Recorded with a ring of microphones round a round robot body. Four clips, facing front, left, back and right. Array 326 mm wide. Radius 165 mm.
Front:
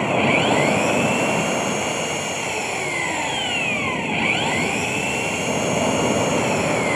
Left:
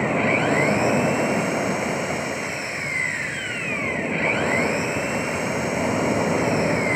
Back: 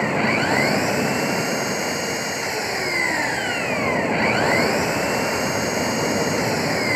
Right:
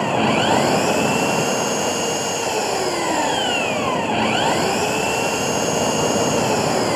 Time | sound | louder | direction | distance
0.0 | an engine running | right 3 dB, front 2 dB | 100° right | ?